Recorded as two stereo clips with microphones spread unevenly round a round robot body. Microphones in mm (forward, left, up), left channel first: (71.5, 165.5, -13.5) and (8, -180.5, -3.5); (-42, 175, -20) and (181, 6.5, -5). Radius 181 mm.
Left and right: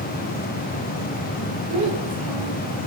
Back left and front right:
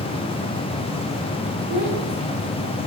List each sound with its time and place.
1.7 s a child speaking: 175° right, 5.5 m; by 2.8 s 175° left, 5.5 m